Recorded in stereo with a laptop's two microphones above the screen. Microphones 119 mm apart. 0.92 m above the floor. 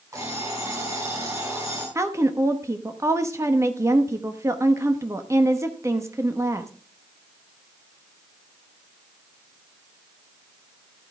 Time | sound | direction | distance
0.1 | an alarm clock | 25° right (ahead or behind) | 5 m
1.9 | a woman speaking | 25° right (ahead or behind) | 0.9 m